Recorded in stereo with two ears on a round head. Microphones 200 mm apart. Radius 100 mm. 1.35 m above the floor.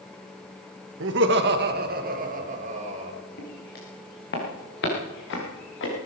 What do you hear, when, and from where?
1.0 s laughter: 55° right (ahead or behind), 1.7 m; by 3.2 s 30° right (ahead or behind), 2.5 m
3.4 s footsteps: 45° left (ahead or behind), 6 m; by 5.9 s 55° left (ahead or behind), 7 m